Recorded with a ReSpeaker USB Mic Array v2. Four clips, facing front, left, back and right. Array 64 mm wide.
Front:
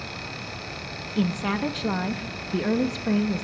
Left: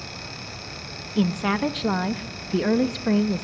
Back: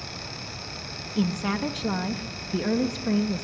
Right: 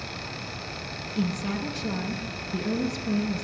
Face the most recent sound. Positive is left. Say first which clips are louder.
# left 6 dB, front 1 dB
turn(degrees=85)